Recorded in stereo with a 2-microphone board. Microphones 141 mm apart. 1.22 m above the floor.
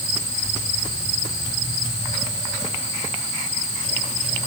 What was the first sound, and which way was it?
Only background noise.